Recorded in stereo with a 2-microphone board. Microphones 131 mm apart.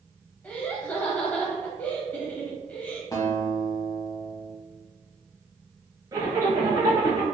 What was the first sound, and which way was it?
Laughter, 10° left (ahead or behind).